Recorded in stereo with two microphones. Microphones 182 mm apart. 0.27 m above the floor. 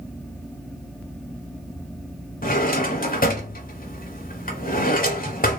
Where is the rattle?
I don't hear a rattle.